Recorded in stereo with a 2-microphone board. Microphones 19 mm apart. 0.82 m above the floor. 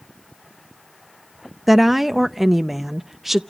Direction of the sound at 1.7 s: 10° right (ahead or behind).